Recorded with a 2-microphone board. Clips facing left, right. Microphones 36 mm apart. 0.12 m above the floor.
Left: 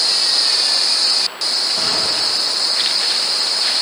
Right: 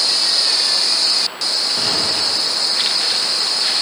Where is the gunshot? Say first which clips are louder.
Even; 20° right (ahead or behind), 4 m.